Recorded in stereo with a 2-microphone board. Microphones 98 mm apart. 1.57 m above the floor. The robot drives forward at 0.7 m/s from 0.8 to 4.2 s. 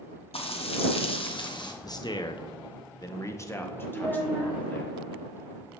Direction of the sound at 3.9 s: 35° right (ahead or behind).